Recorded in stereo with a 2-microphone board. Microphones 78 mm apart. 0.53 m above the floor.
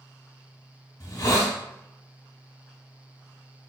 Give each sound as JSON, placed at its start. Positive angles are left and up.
{"t": 1.0, "sound": "a hiss", "side_deg": 50, "distance_m": 1.1}